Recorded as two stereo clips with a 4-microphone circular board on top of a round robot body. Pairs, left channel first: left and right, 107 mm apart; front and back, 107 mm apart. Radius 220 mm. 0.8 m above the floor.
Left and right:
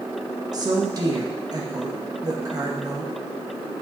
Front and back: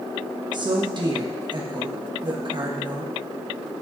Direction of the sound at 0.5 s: 140° right.